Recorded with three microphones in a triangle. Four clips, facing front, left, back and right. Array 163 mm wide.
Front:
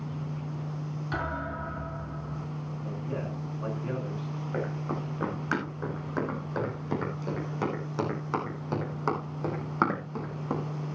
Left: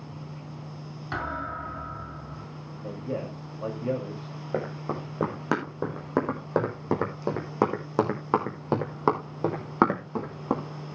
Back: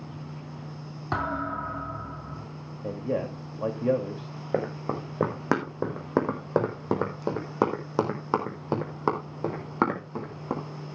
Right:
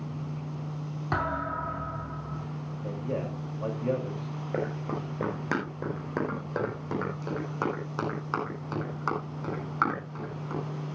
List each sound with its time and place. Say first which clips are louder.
1.1 s a thud: right 2 dB, back 5 dB; 150° right, 7 m
2.8 s a man speaking: even, back 7 dB; straight behind, 2.5 m
4.5 s running footsteps: left 1 dB, back 5 dB; 170° left, 6 m; by 10.6 s 100° left, 5 m